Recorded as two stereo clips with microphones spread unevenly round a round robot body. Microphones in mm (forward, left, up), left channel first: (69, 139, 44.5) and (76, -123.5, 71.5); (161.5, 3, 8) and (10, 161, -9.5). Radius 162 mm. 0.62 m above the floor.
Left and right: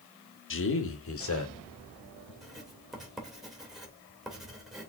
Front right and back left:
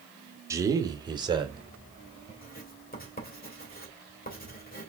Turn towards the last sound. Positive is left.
turn(degrees=0)